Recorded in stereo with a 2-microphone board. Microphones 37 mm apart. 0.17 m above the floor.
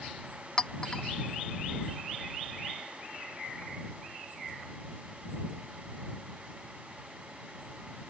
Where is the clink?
15° left (ahead or behind).